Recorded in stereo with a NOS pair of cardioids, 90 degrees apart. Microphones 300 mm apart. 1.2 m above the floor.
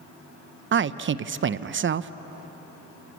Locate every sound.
0.7 s a man speaking: 40° right, 0.8 m